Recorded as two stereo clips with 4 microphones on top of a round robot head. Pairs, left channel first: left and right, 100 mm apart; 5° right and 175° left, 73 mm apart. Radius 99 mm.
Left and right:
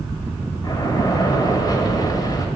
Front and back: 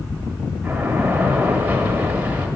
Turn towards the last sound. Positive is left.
turn(degrees=115)